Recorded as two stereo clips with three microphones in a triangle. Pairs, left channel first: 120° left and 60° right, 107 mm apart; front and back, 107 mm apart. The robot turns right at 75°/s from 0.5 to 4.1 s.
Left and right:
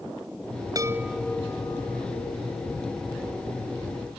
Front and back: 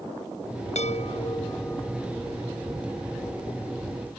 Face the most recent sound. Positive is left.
turn(degrees=-115)